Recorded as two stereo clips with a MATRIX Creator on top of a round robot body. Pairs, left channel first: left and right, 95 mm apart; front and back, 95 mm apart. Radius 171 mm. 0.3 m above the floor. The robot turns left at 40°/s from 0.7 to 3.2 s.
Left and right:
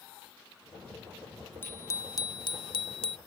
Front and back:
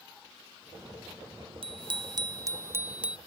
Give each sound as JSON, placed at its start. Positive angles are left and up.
{"t": 1.6, "sound": "a bicycle bell", "azimuth_deg": 160}